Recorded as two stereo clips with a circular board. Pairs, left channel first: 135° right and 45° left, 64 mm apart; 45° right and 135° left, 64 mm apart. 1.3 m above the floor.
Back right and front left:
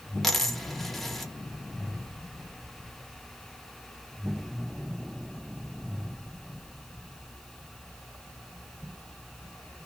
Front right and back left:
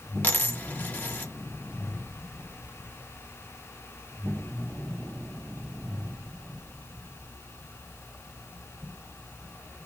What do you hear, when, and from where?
0.2 s a dropped coin: 50° right, 0.6 m